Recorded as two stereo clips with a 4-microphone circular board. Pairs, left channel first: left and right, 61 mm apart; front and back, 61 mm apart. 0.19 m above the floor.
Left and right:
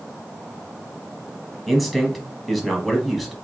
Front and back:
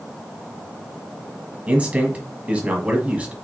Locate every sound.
1.7 s a man speaking: straight behind, 1.3 m